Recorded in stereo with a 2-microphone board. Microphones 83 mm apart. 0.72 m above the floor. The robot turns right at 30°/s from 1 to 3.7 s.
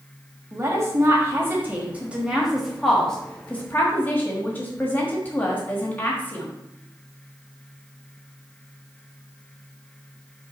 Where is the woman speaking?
55° right, 1.3 m; by 6.5 s 25° left, 1.3 m.